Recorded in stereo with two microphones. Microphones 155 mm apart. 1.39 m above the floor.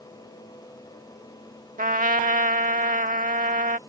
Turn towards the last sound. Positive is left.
turn(degrees=-60)  # may be behind; listen again after turning